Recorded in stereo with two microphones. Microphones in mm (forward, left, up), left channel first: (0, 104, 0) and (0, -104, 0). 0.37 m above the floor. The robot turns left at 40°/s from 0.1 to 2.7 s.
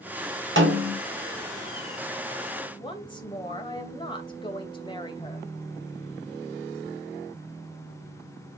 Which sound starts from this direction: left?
A woman speaking, at 2.8 s.